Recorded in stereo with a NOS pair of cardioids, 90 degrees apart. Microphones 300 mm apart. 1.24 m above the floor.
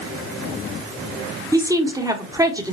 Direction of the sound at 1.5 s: 10° right.